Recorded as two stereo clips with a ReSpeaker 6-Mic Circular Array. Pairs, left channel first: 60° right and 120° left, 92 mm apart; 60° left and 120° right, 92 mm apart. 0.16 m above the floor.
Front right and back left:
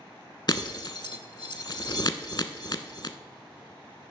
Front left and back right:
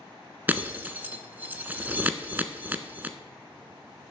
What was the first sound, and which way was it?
Breaking glass, 55° right.